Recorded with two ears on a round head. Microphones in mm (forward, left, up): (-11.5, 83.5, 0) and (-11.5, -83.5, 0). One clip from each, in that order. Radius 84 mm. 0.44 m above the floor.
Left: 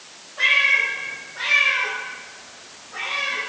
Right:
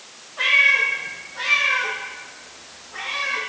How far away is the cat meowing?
About 5.5 m.